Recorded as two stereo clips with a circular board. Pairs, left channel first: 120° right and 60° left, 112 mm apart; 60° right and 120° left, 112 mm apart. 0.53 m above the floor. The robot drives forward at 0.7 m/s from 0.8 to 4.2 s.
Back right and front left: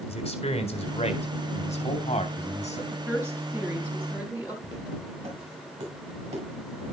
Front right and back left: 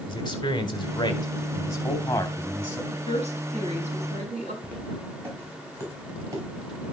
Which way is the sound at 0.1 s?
105° right.